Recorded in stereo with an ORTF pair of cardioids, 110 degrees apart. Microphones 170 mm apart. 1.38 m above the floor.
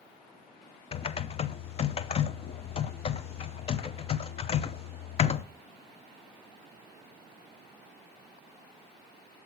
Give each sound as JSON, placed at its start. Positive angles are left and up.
{"t": 0.9, "sound": "typing on a keyboard", "azimuth_deg": 35, "distance_m": 0.8}